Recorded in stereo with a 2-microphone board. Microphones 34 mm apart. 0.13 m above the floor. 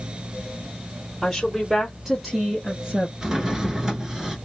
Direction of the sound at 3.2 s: 20° right (ahead or behind).